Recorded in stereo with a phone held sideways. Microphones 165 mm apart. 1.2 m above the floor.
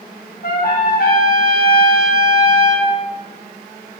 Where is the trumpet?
85° left, 7.5 m.